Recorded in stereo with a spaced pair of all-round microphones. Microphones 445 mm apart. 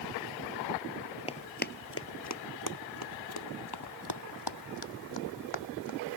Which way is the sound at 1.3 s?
15° left (ahead or behind).